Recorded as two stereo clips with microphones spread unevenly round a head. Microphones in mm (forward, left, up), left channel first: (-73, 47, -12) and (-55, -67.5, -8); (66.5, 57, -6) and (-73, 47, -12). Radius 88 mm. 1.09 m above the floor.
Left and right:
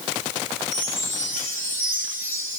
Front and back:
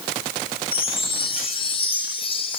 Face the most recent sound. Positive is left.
turn(degrees=55)